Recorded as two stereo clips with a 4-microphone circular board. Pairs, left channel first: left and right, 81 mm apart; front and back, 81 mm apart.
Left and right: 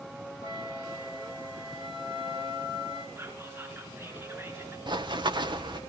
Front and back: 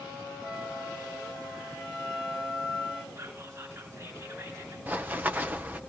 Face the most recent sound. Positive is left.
turn(degrees=-115)